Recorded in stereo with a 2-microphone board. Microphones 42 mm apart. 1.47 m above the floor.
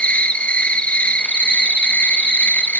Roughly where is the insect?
Left.